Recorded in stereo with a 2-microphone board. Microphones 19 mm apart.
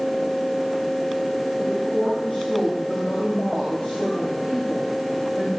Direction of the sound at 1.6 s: 75° left (ahead or behind).